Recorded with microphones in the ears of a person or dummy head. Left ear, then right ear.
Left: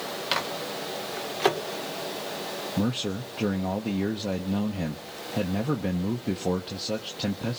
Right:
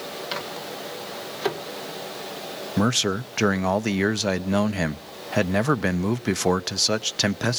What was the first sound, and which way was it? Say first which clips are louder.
A microwave: left 4 dB; 20° left (ahead or behind).